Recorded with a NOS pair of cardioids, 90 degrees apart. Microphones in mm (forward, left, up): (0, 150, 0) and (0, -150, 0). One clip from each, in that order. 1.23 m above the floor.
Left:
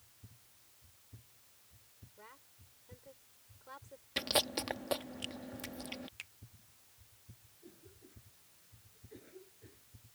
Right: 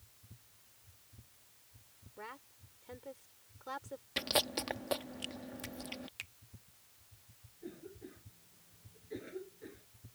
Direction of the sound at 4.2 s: 5° left.